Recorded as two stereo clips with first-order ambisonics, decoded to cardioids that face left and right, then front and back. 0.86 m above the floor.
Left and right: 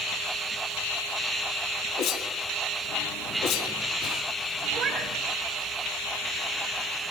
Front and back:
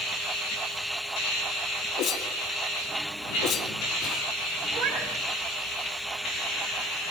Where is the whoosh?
70° left, 2.5 m.